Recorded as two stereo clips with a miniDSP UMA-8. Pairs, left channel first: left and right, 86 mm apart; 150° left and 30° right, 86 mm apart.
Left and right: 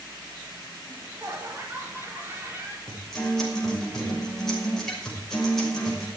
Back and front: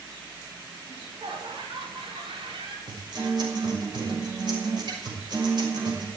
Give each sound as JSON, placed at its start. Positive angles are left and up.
{"t": 0.9, "sound": "laughter", "azimuth_deg": -30, "distance_m": 4.5}
{"t": 2.9, "sound": "a guitar", "azimuth_deg": 5, "distance_m": 6.0}